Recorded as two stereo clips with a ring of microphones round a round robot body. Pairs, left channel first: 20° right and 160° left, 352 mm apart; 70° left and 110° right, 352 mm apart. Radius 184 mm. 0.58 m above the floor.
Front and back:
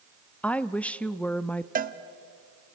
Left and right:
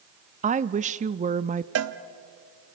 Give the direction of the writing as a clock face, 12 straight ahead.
I don't hear writing.